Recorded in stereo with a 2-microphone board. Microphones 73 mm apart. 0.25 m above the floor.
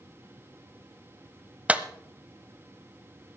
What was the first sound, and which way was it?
A clap, 15° right (ahead or behind).